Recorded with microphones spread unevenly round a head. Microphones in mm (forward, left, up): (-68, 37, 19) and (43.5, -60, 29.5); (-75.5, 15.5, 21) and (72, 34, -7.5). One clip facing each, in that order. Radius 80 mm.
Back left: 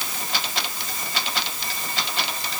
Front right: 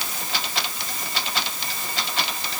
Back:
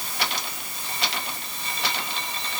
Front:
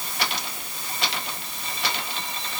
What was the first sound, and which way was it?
Only background noise.